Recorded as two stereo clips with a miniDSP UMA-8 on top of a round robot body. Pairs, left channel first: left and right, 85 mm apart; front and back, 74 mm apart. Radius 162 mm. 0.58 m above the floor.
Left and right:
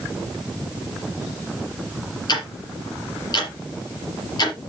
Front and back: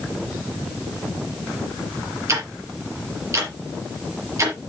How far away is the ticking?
About 4.5 m.